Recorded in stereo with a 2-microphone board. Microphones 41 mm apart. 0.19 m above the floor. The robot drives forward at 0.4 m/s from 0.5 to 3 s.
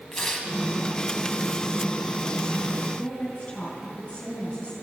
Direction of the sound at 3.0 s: 35° left (ahead or behind).